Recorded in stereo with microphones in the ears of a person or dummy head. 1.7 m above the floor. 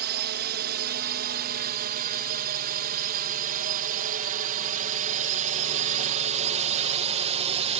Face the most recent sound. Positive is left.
turn(degrees=-35)  # may be behind; listen again after turning